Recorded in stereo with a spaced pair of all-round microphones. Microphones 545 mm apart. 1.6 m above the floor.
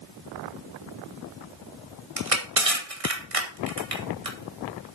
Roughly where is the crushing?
Right.